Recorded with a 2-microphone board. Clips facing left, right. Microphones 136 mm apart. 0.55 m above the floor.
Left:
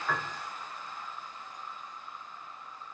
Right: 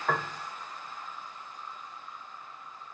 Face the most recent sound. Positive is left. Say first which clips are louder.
# right 5 dB
turn(degrees=-50)  # may be behind; listen again after turning